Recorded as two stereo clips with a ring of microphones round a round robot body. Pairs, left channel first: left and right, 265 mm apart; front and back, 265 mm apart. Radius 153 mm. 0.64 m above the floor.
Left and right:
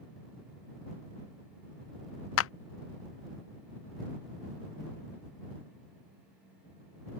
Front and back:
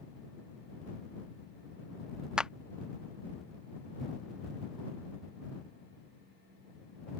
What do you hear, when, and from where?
2.4 s a clap: 95° left